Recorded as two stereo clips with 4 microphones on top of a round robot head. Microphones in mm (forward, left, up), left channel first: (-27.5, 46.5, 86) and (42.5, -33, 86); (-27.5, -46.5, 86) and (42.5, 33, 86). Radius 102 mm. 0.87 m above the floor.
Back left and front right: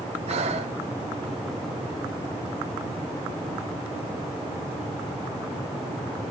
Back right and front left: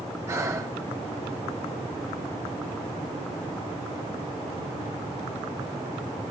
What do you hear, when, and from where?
0.3 s breathing: 15° right, 1.1 m